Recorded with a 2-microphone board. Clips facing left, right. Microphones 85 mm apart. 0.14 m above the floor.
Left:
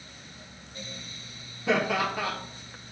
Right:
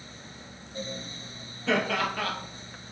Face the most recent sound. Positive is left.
turn(degrees=15)  # may be behind; listen again after turning